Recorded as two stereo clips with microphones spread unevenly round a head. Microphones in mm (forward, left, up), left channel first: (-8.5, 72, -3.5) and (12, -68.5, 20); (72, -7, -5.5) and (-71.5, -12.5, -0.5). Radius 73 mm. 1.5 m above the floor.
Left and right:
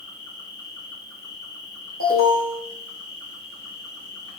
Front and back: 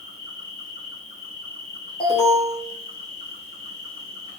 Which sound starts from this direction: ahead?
An insect, at 0.0 s.